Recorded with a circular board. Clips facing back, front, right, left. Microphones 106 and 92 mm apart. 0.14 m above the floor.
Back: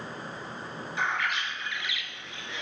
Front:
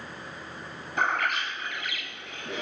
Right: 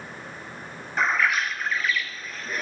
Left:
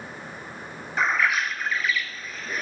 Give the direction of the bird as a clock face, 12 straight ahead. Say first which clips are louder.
Front 3 dB, even; 12 o'clock.